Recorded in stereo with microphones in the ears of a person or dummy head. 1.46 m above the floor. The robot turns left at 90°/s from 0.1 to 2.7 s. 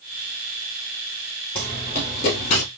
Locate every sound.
1.6 s running footsteps: 10° left (ahead or behind), 2.5 m; by 2.7 s 35° left (ahead or behind), 2 m